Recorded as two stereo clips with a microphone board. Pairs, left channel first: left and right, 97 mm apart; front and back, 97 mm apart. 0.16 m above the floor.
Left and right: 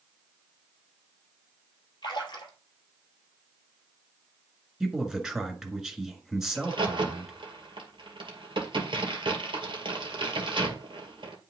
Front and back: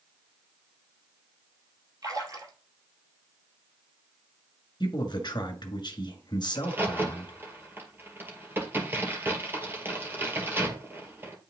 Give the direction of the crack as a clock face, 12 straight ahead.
4 o'clock.